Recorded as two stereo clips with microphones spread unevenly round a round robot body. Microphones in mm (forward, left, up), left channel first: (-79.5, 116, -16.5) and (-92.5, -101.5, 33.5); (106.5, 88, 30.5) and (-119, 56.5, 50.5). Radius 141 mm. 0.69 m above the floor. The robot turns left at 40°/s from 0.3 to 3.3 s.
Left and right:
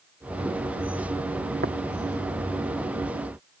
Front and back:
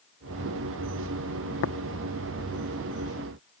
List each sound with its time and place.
1.6 s tapping: 30° right; by 1.8 s 35° right